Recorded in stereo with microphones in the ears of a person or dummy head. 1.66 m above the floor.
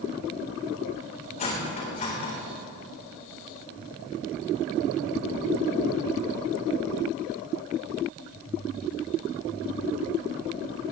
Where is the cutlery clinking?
40° left (ahead or behind), 3.5 m.